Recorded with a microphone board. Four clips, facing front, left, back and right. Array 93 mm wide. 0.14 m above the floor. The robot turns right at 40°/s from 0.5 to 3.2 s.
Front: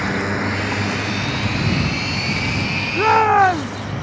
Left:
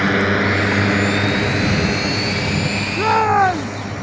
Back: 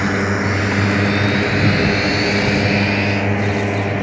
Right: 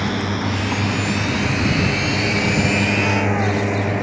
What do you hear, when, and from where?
0.0 s a drone: 110° left; by 4.0 s 145° right
3.0 s a shout: 25° left; by 3.8 s 35° left